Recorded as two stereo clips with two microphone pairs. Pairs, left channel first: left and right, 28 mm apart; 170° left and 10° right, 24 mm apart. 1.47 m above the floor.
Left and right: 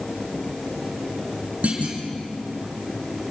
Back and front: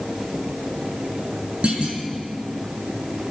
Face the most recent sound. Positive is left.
turn(degrees=-50)